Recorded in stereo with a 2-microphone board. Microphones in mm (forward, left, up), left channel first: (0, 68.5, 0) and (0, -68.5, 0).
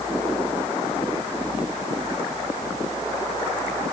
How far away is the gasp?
No gasp in this recording.